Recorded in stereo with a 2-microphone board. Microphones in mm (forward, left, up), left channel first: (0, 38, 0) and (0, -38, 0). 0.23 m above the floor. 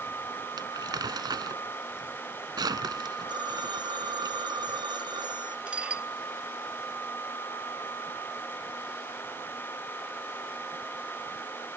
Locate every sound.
0.6 s crumpling: 65° right (ahead or behind)
3.3 s a phone ringing: 70° right (ahead or behind)
5.7 s dishes clattering: 15° right (ahead or behind)